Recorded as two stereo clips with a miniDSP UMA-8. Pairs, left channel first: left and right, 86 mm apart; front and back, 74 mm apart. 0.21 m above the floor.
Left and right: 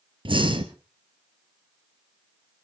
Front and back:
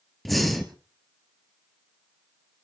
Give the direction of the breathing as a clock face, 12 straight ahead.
3 o'clock.